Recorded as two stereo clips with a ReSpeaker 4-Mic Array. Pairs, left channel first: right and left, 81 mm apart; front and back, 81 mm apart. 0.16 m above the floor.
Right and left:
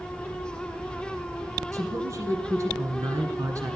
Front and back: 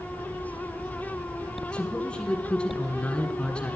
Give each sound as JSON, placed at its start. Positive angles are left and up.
{"t": 1.7, "sound": "a man speaking", "azimuth_deg": 75, "distance_m": 1.5}